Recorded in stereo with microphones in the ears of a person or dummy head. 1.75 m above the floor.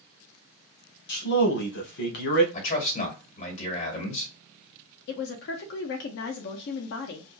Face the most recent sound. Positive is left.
turn(degrees=60)  # may be behind; listen again after turning